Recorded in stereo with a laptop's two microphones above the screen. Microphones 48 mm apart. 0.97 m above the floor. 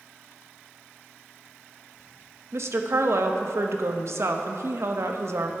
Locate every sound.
2.5 s a woman speaking: 65° right (ahead or behind), 0.8 m